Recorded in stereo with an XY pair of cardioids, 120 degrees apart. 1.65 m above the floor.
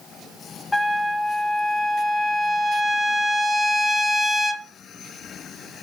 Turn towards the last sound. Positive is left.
turn(degrees=15)